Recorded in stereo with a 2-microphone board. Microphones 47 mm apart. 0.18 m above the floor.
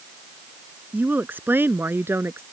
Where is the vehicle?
I don't hear a vehicle.